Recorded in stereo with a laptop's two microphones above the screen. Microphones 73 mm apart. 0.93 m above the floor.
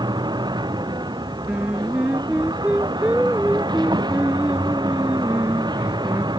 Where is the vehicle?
80° right.